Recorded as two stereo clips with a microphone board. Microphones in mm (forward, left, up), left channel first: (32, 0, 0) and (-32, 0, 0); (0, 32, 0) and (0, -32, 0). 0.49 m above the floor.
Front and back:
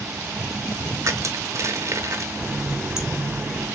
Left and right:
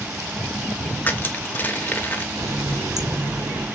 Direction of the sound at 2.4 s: 100° right.